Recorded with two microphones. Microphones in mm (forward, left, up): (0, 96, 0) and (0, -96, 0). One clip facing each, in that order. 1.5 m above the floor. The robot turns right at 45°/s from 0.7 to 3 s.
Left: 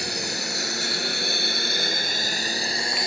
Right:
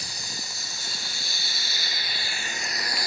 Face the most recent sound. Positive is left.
turn(degrees=25)  # may be behind; listen again after turning